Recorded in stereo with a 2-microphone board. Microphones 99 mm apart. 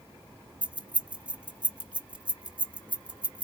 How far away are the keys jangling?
About 0.8 m.